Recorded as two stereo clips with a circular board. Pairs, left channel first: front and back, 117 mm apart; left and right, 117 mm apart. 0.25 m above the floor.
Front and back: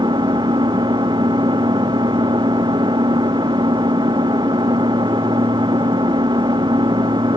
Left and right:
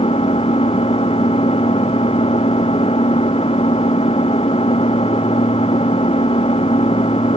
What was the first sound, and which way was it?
An engine running, 125° left.